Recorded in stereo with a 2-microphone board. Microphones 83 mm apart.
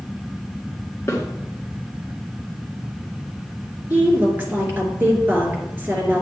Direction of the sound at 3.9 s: 25° right (ahead or behind).